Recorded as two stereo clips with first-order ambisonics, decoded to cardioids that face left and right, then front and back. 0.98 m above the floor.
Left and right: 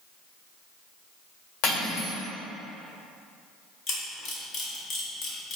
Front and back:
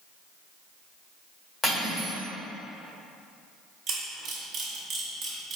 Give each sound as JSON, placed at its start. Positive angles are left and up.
{"t": 1.6, "sound": "cutlery clinking", "azimuth_deg": 70, "distance_m": 1.8}
{"t": 3.9, "sound": "a camera shutter", "azimuth_deg": 125, "distance_m": 1.2}